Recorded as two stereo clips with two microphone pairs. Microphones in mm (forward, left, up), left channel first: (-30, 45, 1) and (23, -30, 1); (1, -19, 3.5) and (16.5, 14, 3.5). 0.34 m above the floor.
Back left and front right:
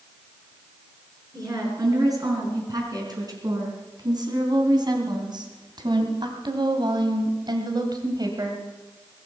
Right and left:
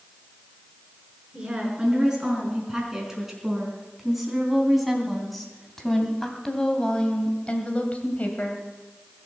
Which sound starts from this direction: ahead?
A woman speaking, at 1.3 s.